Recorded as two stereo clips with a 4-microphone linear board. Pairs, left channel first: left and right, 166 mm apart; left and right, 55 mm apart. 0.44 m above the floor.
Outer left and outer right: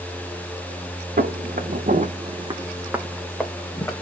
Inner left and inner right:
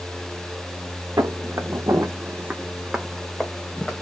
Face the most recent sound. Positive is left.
turn(degrees=20)  # may be behind; listen again after turning